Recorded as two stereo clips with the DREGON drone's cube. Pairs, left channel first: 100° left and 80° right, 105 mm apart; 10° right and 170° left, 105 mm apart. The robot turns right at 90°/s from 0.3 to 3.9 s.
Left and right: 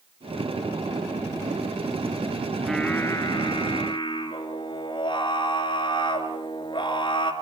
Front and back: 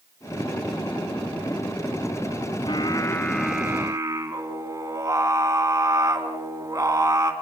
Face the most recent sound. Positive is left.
turn(degrees=115)